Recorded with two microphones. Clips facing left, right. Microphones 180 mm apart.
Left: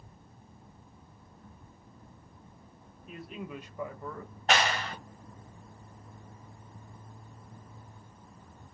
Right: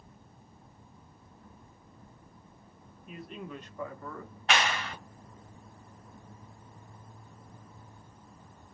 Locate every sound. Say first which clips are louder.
3.1 s a man speaking: left 1 dB; centre (ahead or behind), 1.0 m; by 4.3 s 20° left (ahead or behind), 1.4 m
4.5 s a clap: left 2 dB; 45° left (ahead or behind), 1.5 m